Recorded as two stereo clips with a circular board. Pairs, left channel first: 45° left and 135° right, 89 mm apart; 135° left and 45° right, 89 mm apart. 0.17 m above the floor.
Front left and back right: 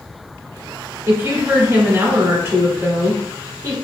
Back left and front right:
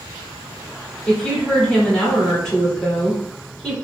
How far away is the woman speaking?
About 1.7 m.